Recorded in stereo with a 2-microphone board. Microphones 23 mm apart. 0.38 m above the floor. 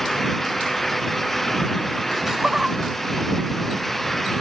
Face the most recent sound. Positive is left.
turn(degrees=-45)  # may be behind; listen again after turning